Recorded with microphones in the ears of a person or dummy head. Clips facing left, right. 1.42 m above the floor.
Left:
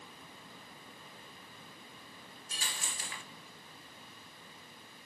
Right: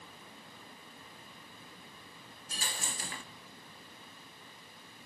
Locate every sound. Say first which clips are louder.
2.5 s a dropped coin: right 4 dB; 35° right (ahead or behind), 1.1 m